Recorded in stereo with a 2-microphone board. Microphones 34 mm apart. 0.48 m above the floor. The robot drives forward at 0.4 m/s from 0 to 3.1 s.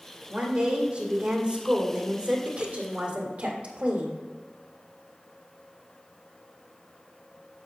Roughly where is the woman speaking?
Right.